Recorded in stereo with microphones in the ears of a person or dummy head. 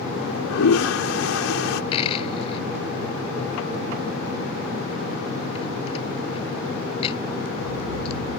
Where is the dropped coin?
30° left (ahead or behind).